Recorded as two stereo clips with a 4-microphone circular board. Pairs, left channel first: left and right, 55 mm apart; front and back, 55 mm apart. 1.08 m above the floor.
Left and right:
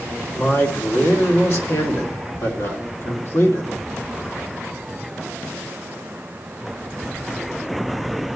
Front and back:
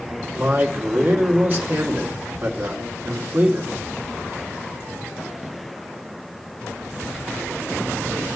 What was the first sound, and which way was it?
A man speaking, 130° left.